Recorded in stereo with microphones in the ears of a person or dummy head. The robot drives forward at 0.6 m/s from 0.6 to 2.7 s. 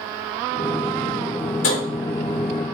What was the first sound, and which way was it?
Tapping, 65° left (ahead or behind).